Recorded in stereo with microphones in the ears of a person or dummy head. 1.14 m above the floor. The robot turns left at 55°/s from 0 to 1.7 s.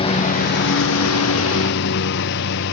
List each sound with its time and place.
0.0 s a lawn mower: 155° left; by 2.7 s 60° left